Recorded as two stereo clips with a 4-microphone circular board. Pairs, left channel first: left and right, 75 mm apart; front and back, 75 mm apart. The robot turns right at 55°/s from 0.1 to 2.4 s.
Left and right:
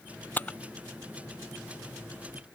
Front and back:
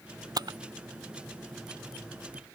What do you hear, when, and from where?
0.4 s a camera shutter: 155° left; by 0.6 s 165° left